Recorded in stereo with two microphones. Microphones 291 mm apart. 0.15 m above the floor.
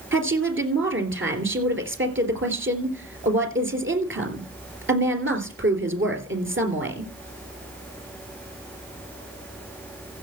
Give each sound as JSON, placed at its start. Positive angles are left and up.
{"t": 0.1, "sound": "a woman speaking", "side_deg": -45, "distance_m": 3.0}